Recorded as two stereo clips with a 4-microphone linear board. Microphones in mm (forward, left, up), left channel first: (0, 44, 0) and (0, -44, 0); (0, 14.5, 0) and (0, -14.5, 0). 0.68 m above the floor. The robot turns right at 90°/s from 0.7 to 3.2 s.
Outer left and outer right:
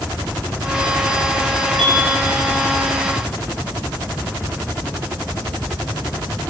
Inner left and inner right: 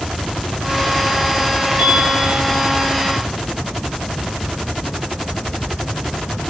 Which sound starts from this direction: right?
A piano, at 1.8 s.